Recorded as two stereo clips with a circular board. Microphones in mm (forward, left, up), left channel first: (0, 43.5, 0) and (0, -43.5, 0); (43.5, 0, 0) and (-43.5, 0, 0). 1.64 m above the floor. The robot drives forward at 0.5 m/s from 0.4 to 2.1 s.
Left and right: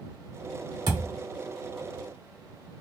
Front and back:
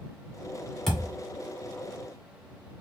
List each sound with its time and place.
0.9 s a thud: 85° right, 2.0 m; by 1.1 s 90° right, 2.0 m